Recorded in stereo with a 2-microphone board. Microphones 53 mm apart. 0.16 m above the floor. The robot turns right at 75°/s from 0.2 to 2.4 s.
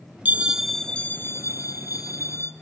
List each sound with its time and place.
0.2 s a bell: 30° right, 2.0 m; by 2.5 s 130° left, 2.0 m